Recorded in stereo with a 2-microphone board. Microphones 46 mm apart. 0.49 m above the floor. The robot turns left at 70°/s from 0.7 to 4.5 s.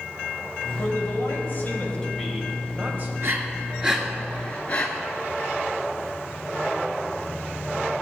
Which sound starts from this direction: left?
A man speaking, at 0.8 s.